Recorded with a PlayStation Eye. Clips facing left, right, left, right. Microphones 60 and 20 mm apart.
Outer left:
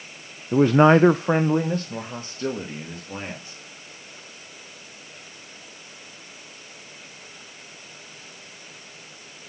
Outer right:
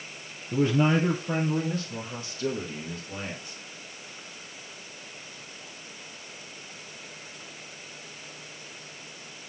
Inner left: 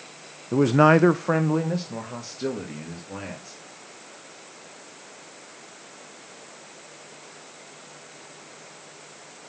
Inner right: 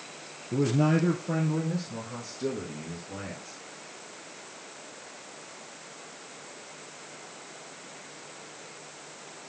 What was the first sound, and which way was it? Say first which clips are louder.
A man speaking: outer left 8 dB, inner left 8 dB; 45° left (ahead or behind).